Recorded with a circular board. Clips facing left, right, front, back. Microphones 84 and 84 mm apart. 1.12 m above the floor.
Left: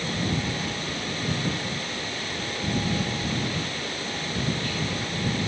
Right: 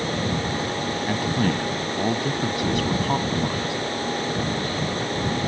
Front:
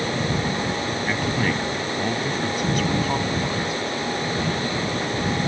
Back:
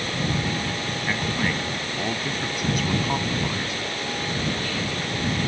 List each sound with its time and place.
1.1 s a man speaking: 90° right